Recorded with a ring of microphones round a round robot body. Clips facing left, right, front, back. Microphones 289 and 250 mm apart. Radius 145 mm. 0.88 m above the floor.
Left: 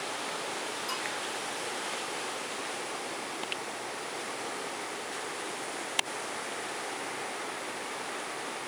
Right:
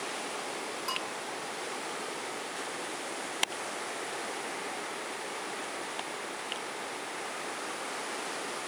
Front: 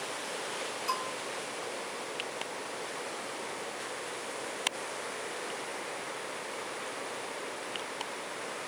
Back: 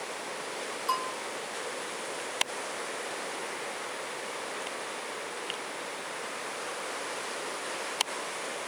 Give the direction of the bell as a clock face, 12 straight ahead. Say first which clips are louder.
Even, back 2 dB; 1 o'clock.